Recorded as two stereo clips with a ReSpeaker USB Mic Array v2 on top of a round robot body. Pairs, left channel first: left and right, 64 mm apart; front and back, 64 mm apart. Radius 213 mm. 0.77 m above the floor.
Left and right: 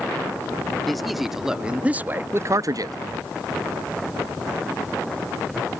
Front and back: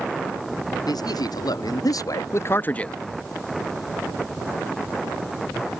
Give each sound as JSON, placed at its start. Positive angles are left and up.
{"t": 0.8, "sound": "a man speaking", "azimuth_deg": 5}